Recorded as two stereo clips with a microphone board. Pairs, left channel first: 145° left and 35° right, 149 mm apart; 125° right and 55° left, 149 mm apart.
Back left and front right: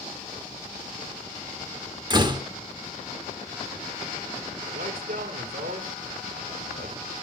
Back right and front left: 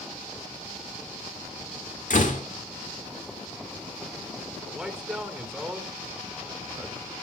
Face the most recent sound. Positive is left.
turn(degrees=-30)